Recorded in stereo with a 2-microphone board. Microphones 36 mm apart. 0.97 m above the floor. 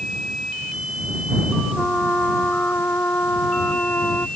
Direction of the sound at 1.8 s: 65° left (ahead or behind).